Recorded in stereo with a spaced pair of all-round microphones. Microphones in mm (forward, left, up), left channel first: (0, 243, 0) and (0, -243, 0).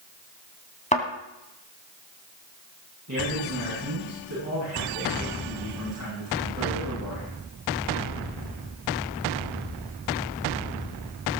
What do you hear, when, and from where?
0.9 s a thud: 15° left (ahead or behind), 2.5 m
3.1 s a man speaking: 35° right (ahead or behind), 8 m